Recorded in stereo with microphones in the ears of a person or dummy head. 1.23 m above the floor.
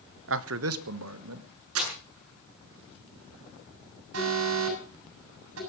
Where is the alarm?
85° right, 7 m.